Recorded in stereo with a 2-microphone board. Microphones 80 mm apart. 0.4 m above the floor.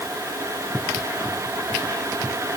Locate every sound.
Only background noise.